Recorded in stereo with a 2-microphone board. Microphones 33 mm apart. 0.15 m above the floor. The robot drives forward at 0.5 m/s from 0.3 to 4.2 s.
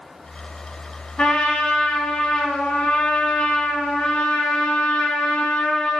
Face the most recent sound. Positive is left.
turn(degrees=30)  # may be behind; listen again after turning